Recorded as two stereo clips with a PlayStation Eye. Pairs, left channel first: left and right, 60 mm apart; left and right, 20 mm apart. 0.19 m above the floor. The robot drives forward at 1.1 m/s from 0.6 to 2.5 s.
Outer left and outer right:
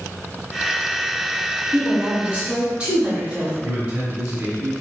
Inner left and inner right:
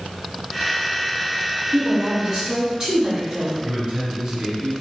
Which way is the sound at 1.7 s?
25° right (ahead or behind).